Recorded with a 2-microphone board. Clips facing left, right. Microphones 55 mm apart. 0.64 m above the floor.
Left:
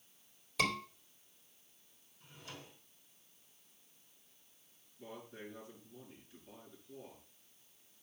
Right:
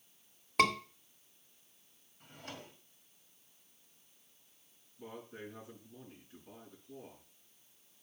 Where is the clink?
No clink in this recording.